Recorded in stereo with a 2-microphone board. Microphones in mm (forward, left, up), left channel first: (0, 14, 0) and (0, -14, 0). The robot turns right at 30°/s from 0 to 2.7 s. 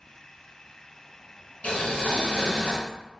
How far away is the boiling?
About 1.0 m.